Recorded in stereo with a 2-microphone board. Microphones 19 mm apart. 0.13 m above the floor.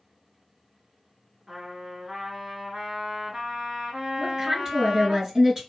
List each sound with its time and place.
1.5 s a trumpet: 40° right (ahead or behind), 1.3 m
4.2 s a woman speaking: 35° right (ahead or behind), 2 m